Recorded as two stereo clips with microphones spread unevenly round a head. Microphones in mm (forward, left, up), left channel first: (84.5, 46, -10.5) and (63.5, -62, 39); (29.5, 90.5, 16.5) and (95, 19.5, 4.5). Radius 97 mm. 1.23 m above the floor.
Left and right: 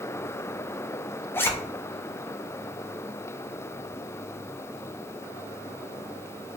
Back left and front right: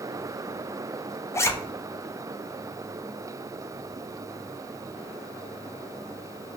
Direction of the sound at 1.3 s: 75° left.